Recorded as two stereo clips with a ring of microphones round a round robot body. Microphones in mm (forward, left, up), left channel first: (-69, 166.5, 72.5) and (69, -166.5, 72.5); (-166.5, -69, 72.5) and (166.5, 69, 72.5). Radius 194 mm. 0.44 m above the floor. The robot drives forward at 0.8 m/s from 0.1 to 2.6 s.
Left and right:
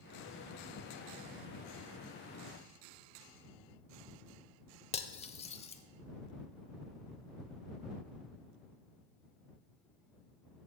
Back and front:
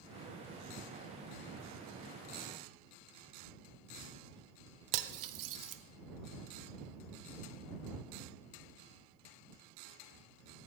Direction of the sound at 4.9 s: 40° left.